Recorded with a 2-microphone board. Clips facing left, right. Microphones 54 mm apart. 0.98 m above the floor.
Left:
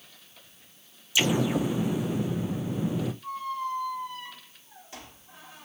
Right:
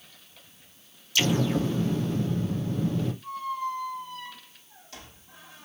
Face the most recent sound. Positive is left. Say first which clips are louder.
# right 1 dB
turn(degrees=20)  # may be behind; listen again after turning